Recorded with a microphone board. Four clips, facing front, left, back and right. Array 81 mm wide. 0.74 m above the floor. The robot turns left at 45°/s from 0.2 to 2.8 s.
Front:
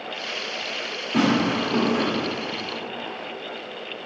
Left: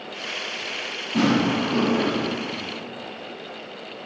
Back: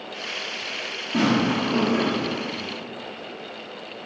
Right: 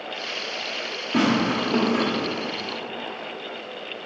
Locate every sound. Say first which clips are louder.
1.1 s tearing paper: left 1 dB, even; 80° right, 1.8 m; by 2.0 s 125° right, 1.8 m